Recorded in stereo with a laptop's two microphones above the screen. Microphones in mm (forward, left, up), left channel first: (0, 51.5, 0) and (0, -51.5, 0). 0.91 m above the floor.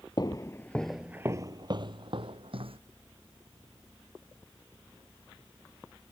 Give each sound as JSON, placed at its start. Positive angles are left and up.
{"t": 0.2, "sound": "footsteps", "side_deg": 45}